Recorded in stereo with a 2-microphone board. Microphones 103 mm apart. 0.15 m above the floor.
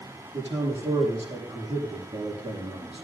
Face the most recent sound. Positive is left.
turn(degrees=-75)  # may be behind; listen again after turning